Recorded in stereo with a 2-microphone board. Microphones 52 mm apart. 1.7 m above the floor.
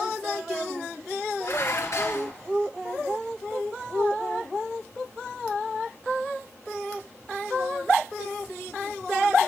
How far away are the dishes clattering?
About 2.5 m.